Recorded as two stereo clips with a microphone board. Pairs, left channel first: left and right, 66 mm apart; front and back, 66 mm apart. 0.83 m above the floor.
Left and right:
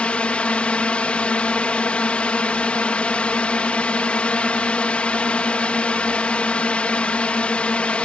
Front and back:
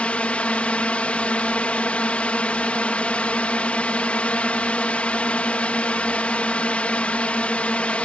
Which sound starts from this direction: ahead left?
A drone, at 0.0 s.